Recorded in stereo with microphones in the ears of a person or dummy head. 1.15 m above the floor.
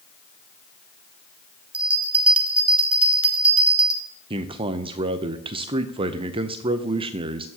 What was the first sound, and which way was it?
A bell, 5° right (ahead or behind).